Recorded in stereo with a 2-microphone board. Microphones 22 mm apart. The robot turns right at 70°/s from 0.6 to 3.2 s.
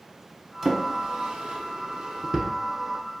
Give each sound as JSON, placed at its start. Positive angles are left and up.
{"t": 0.6, "sound": "a drawer", "side_deg": -25, "distance_m": 0.6}